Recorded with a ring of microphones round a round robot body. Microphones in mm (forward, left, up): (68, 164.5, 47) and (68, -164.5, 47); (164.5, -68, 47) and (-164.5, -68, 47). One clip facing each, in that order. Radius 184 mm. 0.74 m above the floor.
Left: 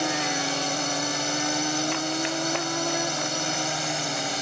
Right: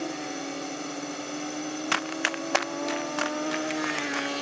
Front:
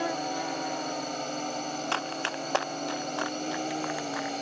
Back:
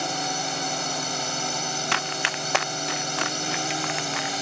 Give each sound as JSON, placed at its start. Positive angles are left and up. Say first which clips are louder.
{"t": 0.0, "sound": "a drone", "louder": "left 4 dB, even", "azimuth_deg": 120}
{"t": 1.9, "sound": "running footsteps", "louder": "left 4 dB, back 2 dB", "azimuth_deg": -130}